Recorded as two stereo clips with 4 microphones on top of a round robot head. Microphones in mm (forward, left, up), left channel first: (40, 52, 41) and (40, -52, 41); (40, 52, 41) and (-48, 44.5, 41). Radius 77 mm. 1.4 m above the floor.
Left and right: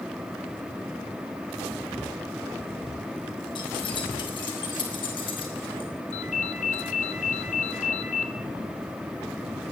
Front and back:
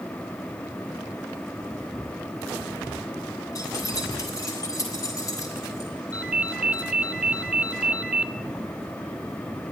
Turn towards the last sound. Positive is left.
turn(degrees=105)